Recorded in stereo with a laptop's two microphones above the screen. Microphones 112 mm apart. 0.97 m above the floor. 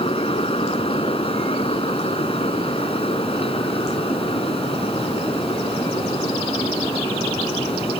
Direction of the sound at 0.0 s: 60° left (ahead or behind).